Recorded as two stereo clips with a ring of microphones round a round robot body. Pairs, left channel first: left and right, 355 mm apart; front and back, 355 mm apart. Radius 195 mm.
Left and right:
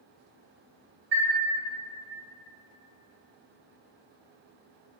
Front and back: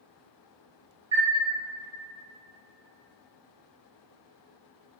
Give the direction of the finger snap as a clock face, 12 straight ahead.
No finger snap in this recording.